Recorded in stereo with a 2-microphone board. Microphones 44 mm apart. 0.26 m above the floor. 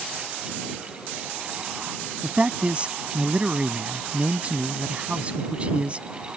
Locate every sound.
2.2 s a man speaking: 30° right (ahead or behind)